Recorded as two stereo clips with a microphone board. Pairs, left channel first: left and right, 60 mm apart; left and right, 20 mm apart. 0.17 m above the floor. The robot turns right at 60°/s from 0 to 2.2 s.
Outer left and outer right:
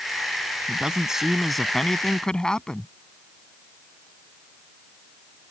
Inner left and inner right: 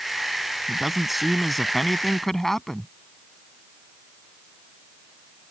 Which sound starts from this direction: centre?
A man speaking, at 0.7 s.